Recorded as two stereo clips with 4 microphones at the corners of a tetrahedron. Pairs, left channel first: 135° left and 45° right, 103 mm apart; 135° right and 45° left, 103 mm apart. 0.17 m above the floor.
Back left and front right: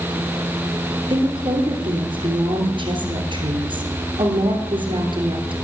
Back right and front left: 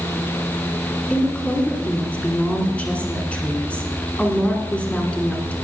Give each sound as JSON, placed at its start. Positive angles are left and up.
{"t": 1.1, "sound": "a woman speaking", "azimuth_deg": -60, "distance_m": 2.5}